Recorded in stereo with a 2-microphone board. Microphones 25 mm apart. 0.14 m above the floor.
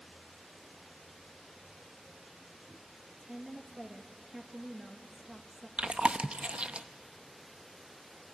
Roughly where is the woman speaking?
Centre.